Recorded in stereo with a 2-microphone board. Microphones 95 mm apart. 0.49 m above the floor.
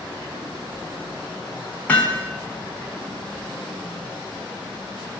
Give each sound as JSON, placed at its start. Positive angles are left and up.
{"t": 1.9, "sound": "hammering", "side_deg": 15, "distance_m": 3.5}